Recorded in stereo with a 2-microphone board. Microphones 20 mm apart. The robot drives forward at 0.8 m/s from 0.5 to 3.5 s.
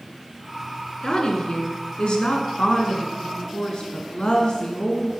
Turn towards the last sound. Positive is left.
turn(degrees=50)  # may be behind; listen again after turning